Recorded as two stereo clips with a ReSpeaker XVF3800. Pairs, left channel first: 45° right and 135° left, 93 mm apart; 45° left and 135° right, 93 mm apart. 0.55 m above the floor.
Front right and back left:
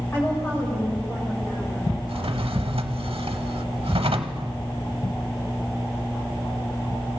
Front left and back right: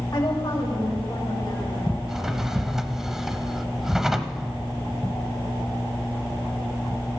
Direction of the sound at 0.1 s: 15° left.